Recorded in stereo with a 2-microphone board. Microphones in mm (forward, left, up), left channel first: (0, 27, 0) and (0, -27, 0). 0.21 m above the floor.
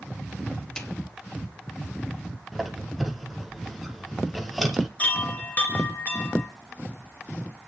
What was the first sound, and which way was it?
A snare drum, 15° left (ahead or behind).